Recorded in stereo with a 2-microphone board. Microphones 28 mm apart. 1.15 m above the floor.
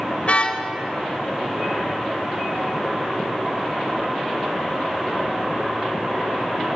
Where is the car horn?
50° left (ahead or behind), 3 m.